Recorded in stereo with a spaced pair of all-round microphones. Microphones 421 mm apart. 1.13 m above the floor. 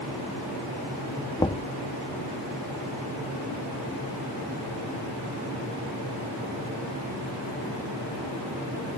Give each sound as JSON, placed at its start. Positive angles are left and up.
{"t": 1.4, "sound": "knocking", "side_deg": 10}